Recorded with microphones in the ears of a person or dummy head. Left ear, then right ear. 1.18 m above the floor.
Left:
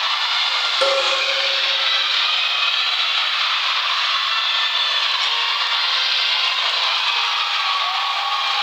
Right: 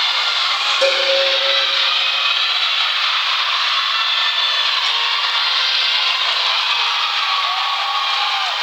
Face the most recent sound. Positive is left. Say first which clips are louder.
# right 1 dB
turn(degrees=30)  # may be behind; listen again after turning